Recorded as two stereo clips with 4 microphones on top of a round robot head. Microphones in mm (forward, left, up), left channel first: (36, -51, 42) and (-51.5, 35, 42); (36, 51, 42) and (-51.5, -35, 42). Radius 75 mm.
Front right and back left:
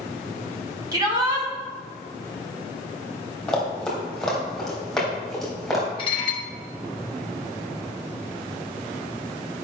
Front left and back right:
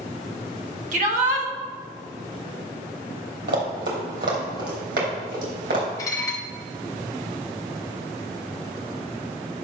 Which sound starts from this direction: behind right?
Running footsteps, at 3.5 s.